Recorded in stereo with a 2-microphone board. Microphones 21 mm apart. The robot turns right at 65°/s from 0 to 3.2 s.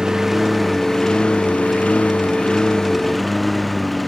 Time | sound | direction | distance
0.0 | a lawn mower | 35° right (ahead or behind) | ?